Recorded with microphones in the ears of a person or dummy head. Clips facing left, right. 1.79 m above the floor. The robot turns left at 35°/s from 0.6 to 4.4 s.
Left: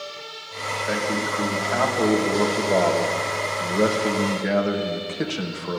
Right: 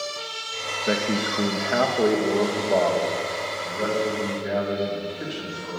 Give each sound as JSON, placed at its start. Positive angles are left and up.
{"t": 0.9, "sound": "a man speaking", "azimuth_deg": -120, "distance_m": 2.5}